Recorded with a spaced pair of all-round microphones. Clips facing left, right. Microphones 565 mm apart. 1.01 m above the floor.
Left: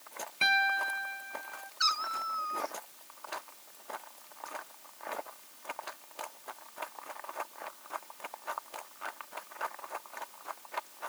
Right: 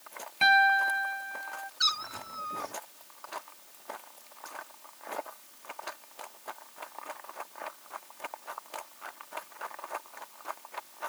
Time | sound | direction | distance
0.4 | a piano | 15° right (ahead or behind) | ?
1.8 | a cat meowing | 50° right (ahead or behind) | ?